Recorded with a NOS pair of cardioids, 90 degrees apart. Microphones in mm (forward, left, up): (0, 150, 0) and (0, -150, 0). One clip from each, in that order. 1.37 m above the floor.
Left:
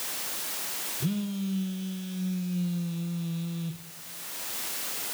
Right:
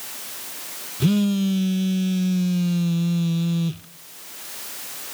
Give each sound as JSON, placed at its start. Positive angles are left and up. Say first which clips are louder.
{"t": 1.0, "sound": "a phone buzzing", "louder": "right 11 dB", "azimuth_deg": -60, "distance_m": 0.8}